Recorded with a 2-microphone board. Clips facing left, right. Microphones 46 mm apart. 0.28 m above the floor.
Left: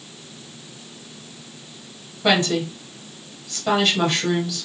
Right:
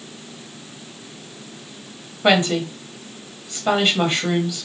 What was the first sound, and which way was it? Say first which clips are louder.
A woman speaking: right 2 dB; 25° right (ahead or behind).